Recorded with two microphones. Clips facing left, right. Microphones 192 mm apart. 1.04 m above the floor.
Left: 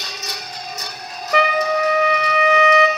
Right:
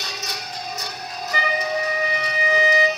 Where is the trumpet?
65° left (ahead or behind), 0.5 m.